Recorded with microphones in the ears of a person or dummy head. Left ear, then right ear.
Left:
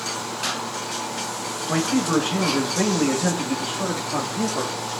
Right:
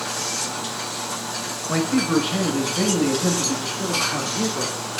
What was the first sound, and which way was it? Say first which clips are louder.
A man speaking: right 1 dB; 15° left (ahead or behind).